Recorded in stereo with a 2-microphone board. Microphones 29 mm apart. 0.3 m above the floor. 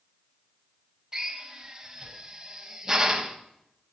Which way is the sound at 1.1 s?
20° right (ahead or behind).